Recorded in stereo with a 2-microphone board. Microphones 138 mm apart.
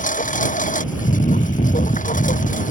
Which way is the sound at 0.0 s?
75° left (ahead or behind).